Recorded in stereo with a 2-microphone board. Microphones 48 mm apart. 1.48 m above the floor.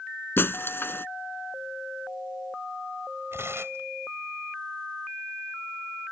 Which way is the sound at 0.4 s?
50° left (ahead or behind).